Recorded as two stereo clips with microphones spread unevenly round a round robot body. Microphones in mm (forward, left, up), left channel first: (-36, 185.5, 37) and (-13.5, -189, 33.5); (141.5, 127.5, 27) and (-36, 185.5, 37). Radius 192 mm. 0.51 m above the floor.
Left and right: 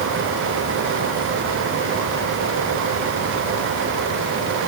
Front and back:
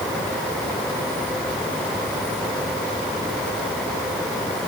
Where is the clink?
No clink in this recording.